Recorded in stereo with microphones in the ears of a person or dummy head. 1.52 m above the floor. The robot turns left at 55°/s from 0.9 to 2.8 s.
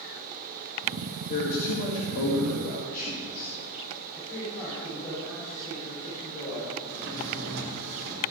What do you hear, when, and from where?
1.3 s a man speaking: 130° left, 2 m; by 3.5 s 45° left, 2 m
4.1 s a man speaking: 20° left (ahead or behind), 4.5 m
6.9 s a drawer: 70° right (ahead or behind), 2.5 m